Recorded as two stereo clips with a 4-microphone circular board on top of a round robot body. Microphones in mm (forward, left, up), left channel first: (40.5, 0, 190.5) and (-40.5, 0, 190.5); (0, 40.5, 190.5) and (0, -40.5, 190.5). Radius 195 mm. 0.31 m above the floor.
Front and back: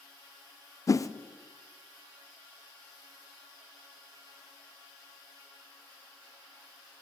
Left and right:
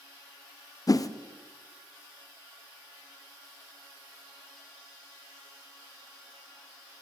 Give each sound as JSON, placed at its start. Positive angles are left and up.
{"t": 0.9, "sound": "a whoosh", "azimuth_deg": 50, "distance_m": 0.6}